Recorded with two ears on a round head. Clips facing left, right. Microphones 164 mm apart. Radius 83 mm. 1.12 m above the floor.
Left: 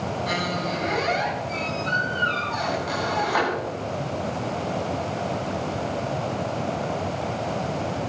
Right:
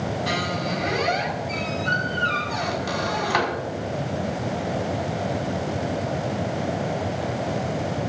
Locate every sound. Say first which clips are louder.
0.3 s a squeak: right 1 dB; 85° right, 5.5 m